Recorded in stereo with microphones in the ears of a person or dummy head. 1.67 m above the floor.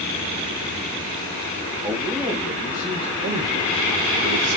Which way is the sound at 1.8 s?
10° right (ahead or behind).